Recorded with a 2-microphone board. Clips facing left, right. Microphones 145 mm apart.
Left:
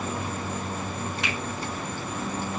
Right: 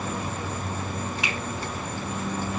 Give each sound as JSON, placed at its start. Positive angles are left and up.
{"t": 1.2, "sound": "a finger snap", "side_deg": -5, "distance_m": 7.5}